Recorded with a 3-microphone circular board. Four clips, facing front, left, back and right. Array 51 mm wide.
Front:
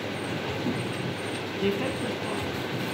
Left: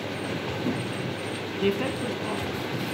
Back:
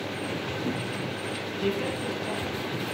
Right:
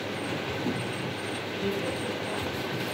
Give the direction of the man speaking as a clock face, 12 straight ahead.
10 o'clock.